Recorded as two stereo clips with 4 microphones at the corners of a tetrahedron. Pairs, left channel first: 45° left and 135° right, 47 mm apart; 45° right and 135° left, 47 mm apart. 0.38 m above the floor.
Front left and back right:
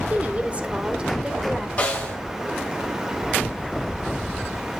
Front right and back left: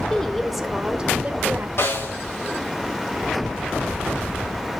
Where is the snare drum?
20° right, 3.5 m.